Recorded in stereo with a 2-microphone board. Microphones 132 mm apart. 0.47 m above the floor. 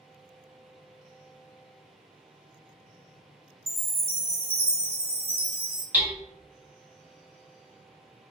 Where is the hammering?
10° right (ahead or behind), 0.9 m.